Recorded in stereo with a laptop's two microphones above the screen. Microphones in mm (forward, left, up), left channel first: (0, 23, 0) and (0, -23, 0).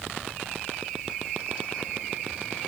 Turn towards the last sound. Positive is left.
No sound to turn to.